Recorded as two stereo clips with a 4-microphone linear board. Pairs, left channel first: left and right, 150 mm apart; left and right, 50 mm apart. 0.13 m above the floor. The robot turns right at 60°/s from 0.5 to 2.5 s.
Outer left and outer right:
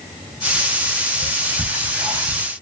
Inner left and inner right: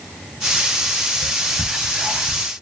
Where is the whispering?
20° right (ahead or behind), 1.1 m; by 2.4 s 5° right (ahead or behind), 1.1 m.